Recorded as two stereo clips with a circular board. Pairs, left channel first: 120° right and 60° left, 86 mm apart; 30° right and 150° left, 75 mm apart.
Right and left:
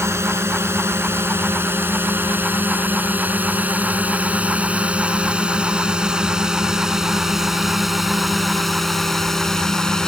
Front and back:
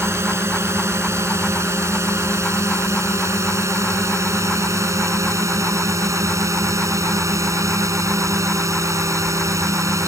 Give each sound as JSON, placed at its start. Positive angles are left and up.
{"t": 0.0, "sound": "a drone", "azimuth_deg": 110}